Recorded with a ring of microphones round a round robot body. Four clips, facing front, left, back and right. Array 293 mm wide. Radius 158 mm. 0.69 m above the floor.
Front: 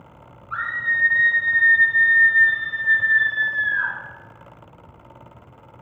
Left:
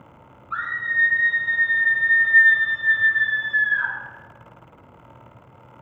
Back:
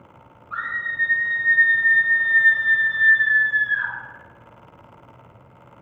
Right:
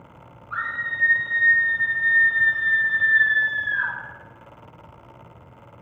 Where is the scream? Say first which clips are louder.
Left 3 dB, front 3 dB; 40° left, 2.0 m; by 3.9 s 115° left, 1.8 m.